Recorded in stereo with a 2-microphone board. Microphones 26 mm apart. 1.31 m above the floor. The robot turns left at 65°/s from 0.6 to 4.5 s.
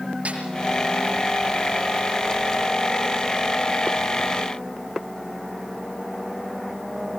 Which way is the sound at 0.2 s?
55° right (ahead or behind).